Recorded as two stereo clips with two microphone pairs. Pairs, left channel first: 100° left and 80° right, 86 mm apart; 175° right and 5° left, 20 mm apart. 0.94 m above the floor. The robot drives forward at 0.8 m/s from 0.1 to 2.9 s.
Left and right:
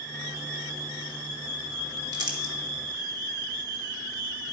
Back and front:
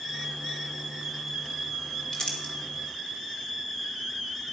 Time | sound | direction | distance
2.1 | crumpling | 115° right | 1.6 m